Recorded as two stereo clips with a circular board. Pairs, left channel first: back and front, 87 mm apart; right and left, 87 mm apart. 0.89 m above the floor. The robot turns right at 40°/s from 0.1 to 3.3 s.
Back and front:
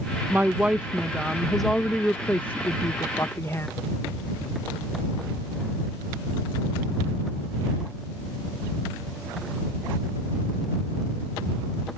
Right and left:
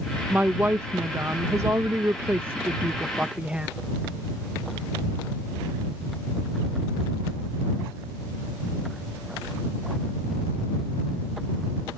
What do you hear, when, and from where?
0.3 s a woman speaking: 40° left; by 3.7 s 160° left